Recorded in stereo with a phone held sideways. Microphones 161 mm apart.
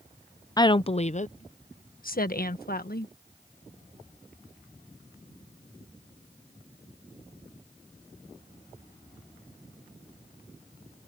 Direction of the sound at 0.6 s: 25° left (ahead or behind).